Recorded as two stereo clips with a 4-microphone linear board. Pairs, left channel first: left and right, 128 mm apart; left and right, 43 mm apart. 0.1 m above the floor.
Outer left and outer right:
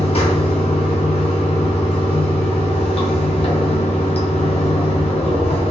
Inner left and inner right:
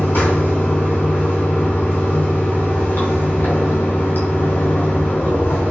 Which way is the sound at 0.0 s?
50° left (ahead or behind).